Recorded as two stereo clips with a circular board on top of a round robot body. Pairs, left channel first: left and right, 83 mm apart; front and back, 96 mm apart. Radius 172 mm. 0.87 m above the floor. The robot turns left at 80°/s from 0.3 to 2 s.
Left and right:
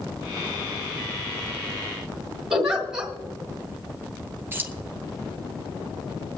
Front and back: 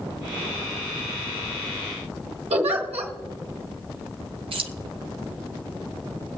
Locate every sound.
2.5 s a giggle: 170° right, 1.9 m
4.5 s keys jangling: 155° right, 0.9 m